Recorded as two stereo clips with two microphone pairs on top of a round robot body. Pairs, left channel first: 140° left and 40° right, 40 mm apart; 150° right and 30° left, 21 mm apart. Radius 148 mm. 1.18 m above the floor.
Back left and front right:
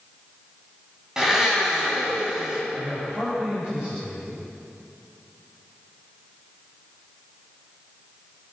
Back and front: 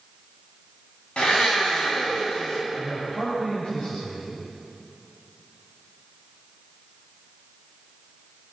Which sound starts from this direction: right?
A man speaking, at 2.7 s.